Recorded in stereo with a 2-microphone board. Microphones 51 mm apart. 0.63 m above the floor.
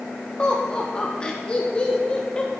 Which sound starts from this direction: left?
Laughter, at 0.4 s.